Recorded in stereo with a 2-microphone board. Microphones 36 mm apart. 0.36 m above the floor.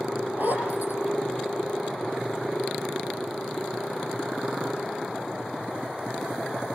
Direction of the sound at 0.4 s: 60° right (ahead or behind).